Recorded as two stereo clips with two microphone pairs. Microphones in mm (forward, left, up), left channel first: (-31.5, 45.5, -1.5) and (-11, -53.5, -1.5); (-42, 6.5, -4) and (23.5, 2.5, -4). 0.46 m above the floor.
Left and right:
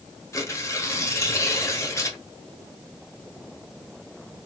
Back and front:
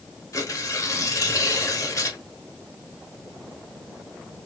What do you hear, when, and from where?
0.3 s tearing paper: 160° left, 1.2 m